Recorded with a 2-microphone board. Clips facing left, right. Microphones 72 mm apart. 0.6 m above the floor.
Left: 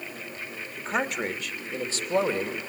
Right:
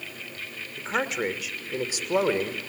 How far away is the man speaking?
About 2.5 m.